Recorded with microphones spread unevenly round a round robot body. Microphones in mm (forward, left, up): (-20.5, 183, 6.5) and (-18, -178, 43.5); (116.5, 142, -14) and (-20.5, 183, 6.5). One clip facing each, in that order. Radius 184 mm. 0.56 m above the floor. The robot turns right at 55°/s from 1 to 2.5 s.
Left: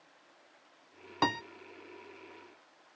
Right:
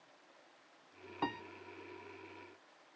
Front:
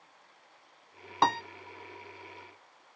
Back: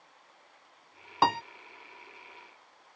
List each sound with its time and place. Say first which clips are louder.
1.2 s a piano: left 7 dB, back 1 dB; 75° left; by 1.4 s 85° left